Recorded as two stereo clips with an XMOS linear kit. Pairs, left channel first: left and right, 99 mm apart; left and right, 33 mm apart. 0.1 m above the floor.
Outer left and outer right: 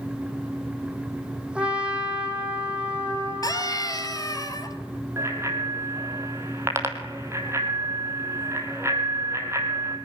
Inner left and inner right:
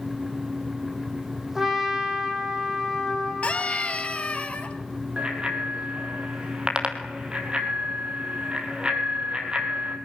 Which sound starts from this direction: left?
A scream, at 3.4 s.